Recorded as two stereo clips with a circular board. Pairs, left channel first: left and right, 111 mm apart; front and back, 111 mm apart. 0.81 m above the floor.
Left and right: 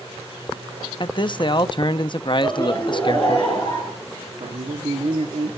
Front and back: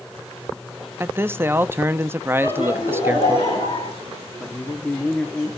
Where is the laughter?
20° left, 8 m.